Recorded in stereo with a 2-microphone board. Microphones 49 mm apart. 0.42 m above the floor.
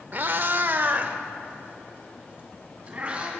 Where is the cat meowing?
40° right (ahead or behind), 0.6 m; by 3.3 s 20° right (ahead or behind), 2.5 m.